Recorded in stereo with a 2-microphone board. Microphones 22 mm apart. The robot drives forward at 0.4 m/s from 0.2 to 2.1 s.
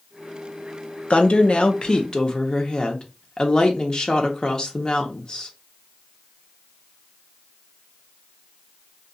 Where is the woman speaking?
65° left (ahead or behind), 0.6 m; by 5.5 s 40° left (ahead or behind), 0.8 m.